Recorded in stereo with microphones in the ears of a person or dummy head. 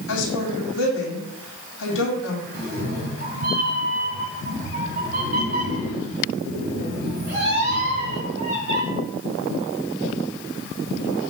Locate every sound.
0.1 s a woman speaking: 70° left (ahead or behind), 2.5 m
2.5 s a cat meowing: 40° right (ahead or behind), 2.5 m